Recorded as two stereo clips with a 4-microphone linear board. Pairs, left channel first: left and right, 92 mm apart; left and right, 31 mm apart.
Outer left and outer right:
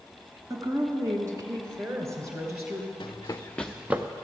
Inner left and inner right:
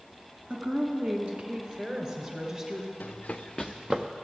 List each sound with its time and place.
0.5 s a woman speaking: 40° right (ahead or behind), 1.6 m; by 2.9 s 25° right (ahead or behind), 2.5 m
3.0 s running footsteps: 55° left (ahead or behind), 1.0 m; by 4.1 s 25° right (ahead or behind), 1.1 m